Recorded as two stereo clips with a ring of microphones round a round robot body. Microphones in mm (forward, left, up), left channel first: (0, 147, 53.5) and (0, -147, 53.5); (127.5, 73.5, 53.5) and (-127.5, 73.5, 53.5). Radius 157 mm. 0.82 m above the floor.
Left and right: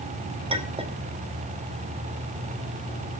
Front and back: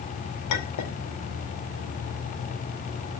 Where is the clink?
20° right, 2.5 m.